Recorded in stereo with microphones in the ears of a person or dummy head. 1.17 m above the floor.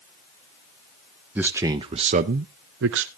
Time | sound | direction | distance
1.4 | a man speaking | 10° right (ahead or behind) | 0.8 m